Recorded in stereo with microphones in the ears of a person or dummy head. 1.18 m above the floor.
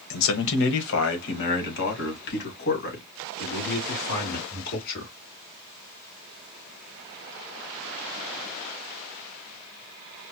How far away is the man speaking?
About 0.9 m.